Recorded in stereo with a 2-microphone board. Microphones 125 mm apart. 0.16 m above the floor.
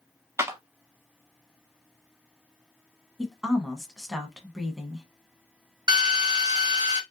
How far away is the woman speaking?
About 1.0 m.